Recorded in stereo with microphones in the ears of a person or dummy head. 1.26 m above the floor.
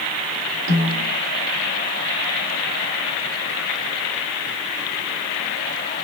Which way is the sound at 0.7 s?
60° right (ahead or behind).